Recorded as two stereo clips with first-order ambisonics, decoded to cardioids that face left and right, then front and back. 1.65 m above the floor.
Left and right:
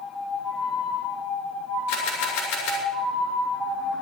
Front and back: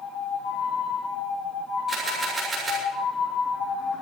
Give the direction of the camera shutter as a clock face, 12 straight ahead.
9 o'clock.